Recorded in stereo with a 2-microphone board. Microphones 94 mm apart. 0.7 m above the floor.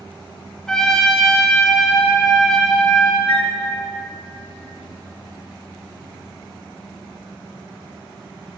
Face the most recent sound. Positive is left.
turn(degrees=50)  # may be behind; listen again after turning